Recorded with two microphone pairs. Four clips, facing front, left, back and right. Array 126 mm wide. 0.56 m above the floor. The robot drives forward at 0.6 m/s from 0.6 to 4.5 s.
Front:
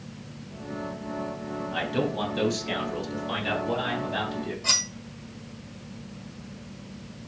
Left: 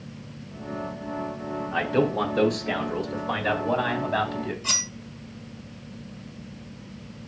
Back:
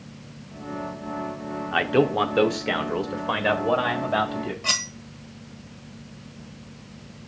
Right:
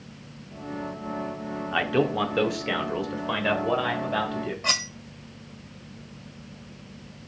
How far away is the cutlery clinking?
About 1.7 m.